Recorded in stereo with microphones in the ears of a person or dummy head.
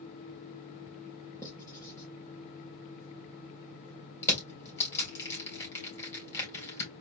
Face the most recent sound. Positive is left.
turn(degrees=15)  # may be behind; listen again after turning